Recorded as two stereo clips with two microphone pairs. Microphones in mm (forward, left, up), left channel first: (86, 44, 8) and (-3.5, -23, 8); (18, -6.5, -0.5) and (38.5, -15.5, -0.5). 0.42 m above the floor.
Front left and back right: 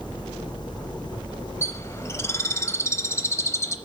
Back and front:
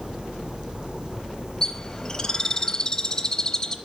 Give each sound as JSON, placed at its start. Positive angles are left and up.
{"t": 1.6, "sound": "a bird", "azimuth_deg": 100, "distance_m": 0.6}